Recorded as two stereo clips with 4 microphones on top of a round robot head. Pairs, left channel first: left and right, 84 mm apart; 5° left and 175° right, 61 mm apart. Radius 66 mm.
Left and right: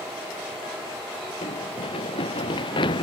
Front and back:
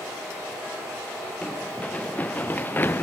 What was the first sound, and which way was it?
Running footsteps, 75° left.